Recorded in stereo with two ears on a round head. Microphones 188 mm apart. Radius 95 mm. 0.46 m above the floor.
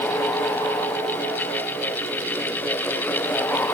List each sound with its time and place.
Only background noise.